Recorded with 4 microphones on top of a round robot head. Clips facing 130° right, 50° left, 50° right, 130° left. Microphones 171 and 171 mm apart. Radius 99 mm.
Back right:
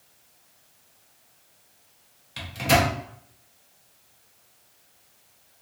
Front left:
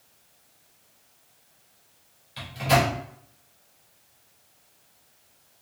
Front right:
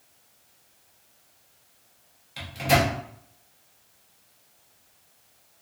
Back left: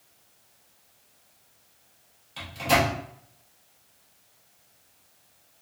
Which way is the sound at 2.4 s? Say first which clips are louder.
Even, front right 1 dB; 130° right.